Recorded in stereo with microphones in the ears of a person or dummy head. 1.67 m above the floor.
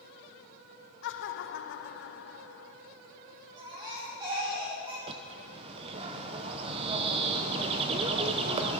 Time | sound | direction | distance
1.0 | laughter | 65° left (ahead or behind) | 0.9 m
3.6 | a baby crying | 25° right (ahead or behind) | 3 m
5.1 | a bird | 30° right (ahead or behind) | 0.8 m